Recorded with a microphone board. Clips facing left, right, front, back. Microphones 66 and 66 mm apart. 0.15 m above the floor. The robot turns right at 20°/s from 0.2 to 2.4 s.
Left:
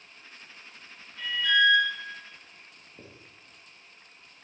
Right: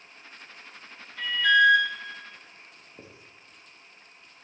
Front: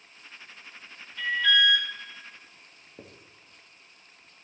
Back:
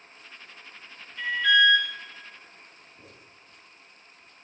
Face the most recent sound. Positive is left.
turn(degrees=-20)